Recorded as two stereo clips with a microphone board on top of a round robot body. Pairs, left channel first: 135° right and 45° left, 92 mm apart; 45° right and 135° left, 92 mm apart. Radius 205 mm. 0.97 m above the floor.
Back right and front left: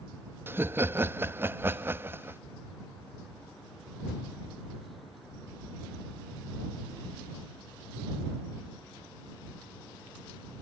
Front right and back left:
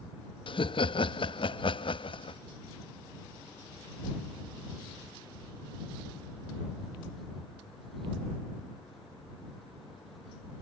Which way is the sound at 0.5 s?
20° right.